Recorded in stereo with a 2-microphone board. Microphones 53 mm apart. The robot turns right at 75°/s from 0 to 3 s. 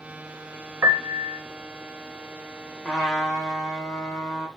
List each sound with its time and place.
0.8 s a piano: 115° right, 1.1 m; by 1.4 s 75° right, 1.1 m
2.9 s a trumpet: centre (ahead or behind), 3.5 m; by 4.5 s 10° left (ahead or behind), 3.5 m